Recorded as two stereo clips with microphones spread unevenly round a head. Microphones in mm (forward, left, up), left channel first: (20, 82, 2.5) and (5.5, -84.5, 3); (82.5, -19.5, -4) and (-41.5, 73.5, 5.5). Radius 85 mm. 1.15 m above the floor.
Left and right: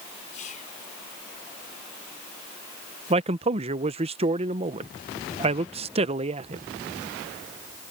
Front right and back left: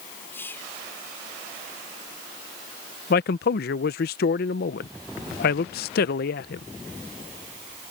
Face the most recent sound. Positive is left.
turn(degrees=-45)